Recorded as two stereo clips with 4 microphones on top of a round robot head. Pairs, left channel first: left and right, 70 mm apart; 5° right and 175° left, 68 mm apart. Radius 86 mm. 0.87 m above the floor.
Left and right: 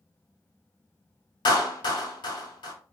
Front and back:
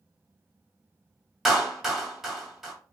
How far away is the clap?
About 1.6 m.